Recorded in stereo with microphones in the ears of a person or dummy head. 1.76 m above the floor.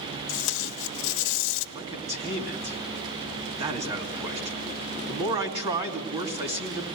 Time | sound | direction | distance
0.3 | tape being pulled | 75° left (ahead or behind) | 0.8 m
1.8 | a man speaking | 25° right (ahead or behind) | 2.5 m